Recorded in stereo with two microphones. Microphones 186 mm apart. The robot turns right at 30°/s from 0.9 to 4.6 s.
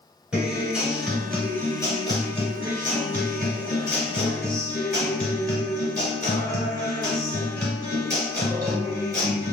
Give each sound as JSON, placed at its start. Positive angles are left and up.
{"t": 0.3, "sound": "a guitar", "azimuth_deg": -5, "distance_m": 1.6}